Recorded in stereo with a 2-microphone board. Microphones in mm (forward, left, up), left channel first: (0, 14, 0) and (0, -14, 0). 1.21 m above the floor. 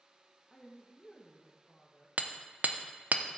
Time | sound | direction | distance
0.5 | a woman speaking | 25° left (ahead or behind) | 1.7 m
2.2 | hammering | 60° right (ahead or behind) | 0.6 m